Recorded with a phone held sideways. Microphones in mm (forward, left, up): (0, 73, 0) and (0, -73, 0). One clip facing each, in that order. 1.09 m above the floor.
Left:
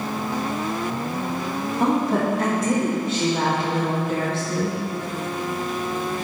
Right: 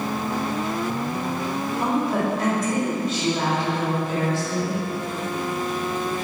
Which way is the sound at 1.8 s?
55° left (ahead or behind).